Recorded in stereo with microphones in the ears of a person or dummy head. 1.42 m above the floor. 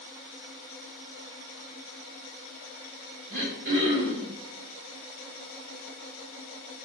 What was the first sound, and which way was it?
Throat clearing, 50° right (ahead or behind).